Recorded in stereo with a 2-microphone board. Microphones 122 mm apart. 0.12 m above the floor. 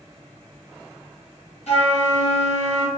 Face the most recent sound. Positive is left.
turn(degrees=65)  # may be behind; listen again after turning